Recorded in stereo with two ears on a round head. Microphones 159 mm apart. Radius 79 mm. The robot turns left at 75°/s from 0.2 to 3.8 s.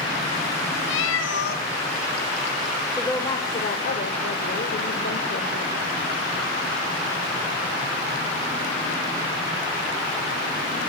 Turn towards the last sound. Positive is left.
turn(degrees=115)